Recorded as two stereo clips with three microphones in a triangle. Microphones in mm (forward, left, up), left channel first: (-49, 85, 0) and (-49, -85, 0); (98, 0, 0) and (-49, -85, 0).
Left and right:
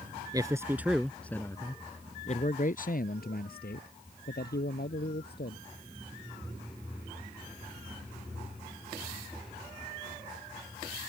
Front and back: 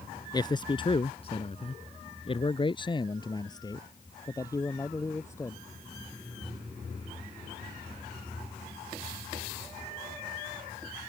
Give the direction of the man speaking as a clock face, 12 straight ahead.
1 o'clock.